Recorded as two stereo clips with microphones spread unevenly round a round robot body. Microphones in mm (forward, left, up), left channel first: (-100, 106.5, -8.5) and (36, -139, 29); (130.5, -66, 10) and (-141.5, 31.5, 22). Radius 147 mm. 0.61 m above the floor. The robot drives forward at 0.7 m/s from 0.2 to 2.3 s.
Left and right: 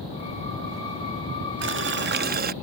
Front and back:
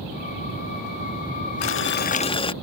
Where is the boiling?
20° right; by 2.5 s 50° right.